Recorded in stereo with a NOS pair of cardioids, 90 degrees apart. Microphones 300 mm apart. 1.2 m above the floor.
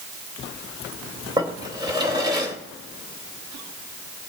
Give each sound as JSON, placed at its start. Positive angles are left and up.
{"t": 1.4, "sound": "a drawer", "azimuth_deg": -15, "distance_m": 2.0}